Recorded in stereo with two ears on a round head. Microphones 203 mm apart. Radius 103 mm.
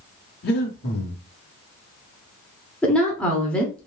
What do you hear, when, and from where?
0.4 s breathing: 45° left (ahead or behind), 1.0 m
2.8 s a woman speaking: 5° left (ahead or behind), 0.8 m